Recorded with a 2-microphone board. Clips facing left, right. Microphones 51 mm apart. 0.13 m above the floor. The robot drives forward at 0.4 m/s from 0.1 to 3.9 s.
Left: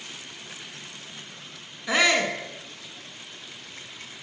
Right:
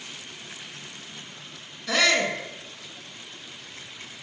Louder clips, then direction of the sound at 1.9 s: Left 1 dB; 20° left (ahead or behind).